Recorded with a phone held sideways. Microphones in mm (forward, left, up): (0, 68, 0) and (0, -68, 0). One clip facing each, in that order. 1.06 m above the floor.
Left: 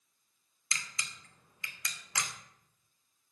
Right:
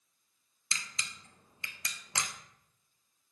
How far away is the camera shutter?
About 1.1 m.